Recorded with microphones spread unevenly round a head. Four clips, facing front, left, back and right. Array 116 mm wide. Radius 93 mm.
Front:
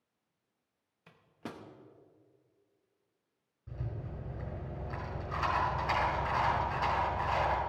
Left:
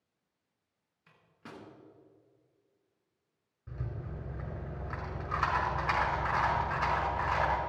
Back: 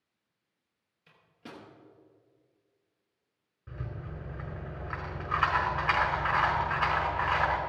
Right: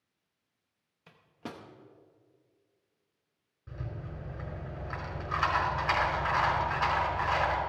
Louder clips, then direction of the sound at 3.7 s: Even, back 1 dB; 165° right.